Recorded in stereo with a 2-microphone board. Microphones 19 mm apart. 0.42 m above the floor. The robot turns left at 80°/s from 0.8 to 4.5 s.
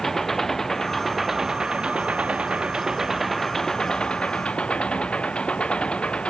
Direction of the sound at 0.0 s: 25° left.